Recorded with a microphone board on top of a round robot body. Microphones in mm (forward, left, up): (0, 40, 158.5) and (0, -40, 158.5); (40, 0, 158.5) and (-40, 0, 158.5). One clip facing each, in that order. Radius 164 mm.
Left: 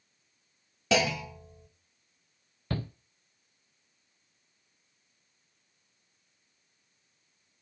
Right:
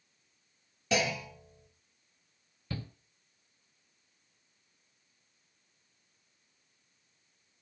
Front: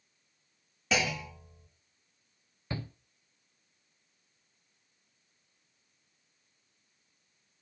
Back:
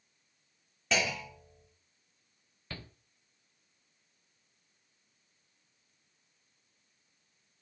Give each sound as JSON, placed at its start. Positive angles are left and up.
{"t": 0.9, "sound": "a clunk", "azimuth_deg": 85, "distance_m": 1.3}
{"t": 2.7, "sound": "a shout", "azimuth_deg": 70, "distance_m": 0.6}